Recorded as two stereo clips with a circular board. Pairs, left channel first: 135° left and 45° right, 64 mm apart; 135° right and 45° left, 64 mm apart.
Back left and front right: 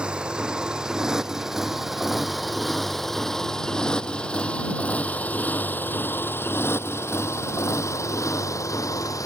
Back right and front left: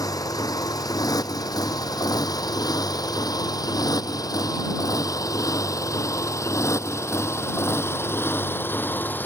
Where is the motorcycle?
120° right; by 9.3 s 165° left.